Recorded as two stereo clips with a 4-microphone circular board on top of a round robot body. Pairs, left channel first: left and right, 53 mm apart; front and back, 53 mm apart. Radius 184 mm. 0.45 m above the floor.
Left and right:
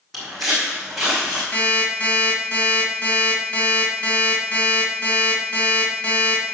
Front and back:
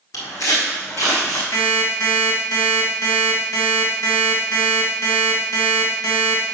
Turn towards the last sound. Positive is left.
turn(degrees=30)